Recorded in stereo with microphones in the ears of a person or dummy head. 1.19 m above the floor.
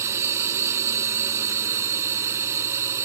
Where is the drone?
15° right (ahead or behind).